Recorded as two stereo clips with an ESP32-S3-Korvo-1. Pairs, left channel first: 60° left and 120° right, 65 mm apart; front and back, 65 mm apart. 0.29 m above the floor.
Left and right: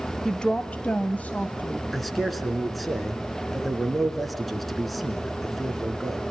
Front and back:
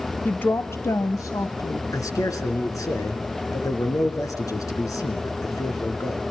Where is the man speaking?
30° right, 3.5 m.